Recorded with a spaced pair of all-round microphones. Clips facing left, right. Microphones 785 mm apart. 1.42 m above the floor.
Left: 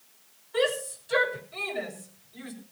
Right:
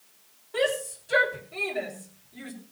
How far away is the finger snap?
No finger snap in this recording.